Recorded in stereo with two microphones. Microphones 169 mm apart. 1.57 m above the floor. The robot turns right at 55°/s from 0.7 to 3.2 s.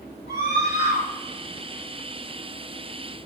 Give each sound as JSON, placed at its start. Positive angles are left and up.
{"t": 0.3, "sound": "a scream", "side_deg": -75, "distance_m": 3.0}